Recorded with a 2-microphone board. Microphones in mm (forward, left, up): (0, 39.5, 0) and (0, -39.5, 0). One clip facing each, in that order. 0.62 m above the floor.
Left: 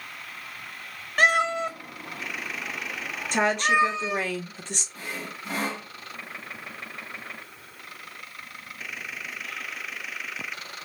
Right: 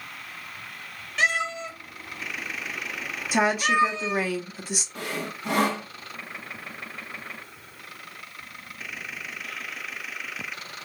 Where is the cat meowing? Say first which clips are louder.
Left 4 dB; 45° left (ahead or behind), 0.6 m; by 4.3 s 15° left (ahead or behind), 1.3 m.